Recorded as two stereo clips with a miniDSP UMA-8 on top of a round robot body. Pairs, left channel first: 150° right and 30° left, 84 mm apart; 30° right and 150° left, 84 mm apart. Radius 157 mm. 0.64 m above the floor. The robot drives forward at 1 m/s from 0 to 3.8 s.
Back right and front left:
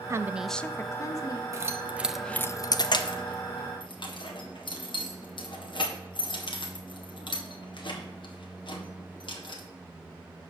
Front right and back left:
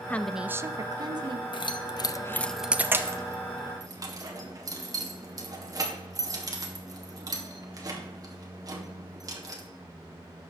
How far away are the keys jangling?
About 1.0 m.